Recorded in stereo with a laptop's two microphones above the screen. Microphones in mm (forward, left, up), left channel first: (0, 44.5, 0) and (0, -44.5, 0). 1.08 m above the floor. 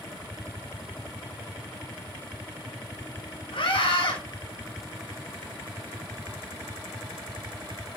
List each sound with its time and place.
3.5 s a scream: 75° left (ahead or behind), 5.5 m